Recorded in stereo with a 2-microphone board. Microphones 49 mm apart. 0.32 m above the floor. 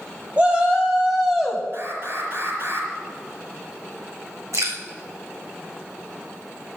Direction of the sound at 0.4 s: 25° right (ahead or behind).